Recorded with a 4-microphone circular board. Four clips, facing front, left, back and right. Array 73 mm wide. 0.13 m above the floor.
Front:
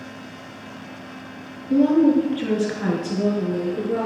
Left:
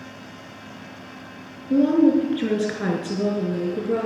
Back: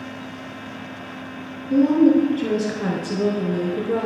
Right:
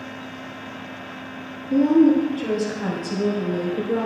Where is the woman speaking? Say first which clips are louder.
Right 1 dB, back 1 dB; 60° left, 2.5 m; by 4.0 s 115° left, 2.5 m.